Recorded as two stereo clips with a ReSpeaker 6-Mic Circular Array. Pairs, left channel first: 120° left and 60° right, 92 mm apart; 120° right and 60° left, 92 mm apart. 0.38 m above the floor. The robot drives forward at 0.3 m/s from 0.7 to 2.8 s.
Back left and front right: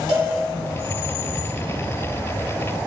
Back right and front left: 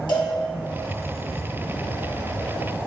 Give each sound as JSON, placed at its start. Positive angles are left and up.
{"t": 0.1, "sound": "a cowbell", "azimuth_deg": -90, "distance_m": 0.6}